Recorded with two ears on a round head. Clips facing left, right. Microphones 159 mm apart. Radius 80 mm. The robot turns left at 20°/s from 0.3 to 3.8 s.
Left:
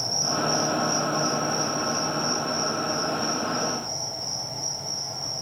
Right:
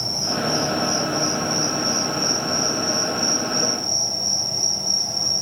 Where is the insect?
45° right, 1.5 m; by 5.4 s 115° right, 1.5 m.